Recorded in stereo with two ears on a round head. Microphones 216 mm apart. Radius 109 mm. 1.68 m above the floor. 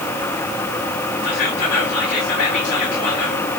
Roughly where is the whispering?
Left.